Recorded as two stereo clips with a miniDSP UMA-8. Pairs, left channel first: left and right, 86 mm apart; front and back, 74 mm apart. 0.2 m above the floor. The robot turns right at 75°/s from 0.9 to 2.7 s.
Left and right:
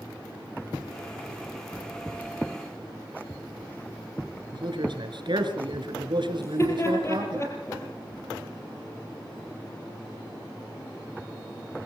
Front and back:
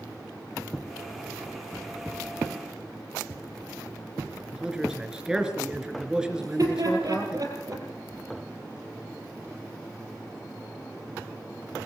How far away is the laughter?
About 6.5 m.